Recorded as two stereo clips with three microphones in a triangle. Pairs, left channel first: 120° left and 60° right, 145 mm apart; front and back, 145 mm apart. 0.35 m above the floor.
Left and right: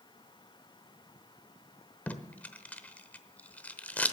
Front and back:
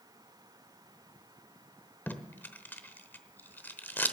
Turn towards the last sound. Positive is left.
turn(degrees=55)